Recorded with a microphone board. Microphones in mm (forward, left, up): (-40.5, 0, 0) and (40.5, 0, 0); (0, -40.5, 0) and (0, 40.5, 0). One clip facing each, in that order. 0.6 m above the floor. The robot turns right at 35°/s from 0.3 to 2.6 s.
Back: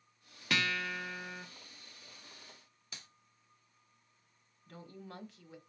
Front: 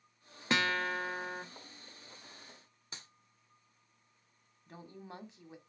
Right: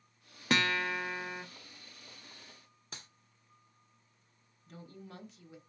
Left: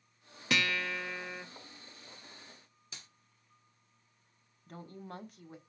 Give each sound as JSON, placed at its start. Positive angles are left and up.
{"t": 0.5, "sound": "a guitar", "azimuth_deg": -55, "distance_m": 1.1}
{"t": 2.9, "sound": "a clap", "azimuth_deg": -55, "distance_m": 1.6}
{"t": 4.7, "sound": "a woman speaking", "azimuth_deg": 65, "distance_m": 1.4}